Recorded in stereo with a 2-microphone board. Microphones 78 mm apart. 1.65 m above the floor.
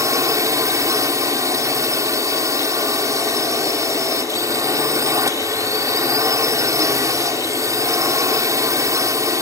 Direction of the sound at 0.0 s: 45° right (ahead or behind).